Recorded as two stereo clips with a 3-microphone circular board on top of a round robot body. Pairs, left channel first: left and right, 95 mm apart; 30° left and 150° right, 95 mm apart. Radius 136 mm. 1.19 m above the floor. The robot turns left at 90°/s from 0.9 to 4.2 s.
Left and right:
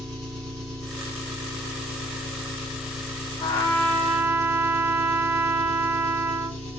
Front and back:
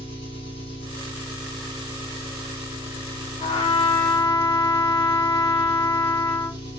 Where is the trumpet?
60° left, 1.0 m; by 6.6 s 15° right, 1.0 m.